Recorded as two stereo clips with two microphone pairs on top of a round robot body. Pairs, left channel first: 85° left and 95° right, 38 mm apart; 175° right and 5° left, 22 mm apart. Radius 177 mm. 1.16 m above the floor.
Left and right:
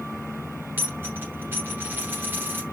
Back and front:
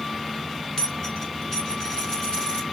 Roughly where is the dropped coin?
Behind right.